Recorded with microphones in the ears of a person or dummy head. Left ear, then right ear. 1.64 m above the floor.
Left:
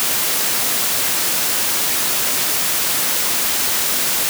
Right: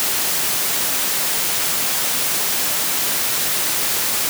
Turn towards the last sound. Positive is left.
No sound to turn to.